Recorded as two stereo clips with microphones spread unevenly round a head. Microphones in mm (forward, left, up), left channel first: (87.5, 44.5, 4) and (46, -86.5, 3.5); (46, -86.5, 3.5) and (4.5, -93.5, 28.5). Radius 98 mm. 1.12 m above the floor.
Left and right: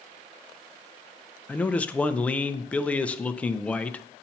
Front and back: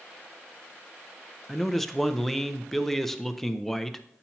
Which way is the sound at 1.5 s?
5° right.